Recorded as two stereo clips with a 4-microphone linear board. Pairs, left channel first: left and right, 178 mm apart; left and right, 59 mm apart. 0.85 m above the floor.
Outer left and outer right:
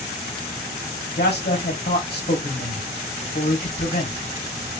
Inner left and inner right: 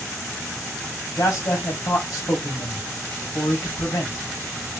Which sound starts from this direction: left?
A man speaking, at 1.2 s.